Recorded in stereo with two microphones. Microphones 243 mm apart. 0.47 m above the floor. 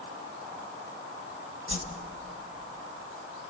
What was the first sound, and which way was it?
A whoosh, 55° left (ahead or behind).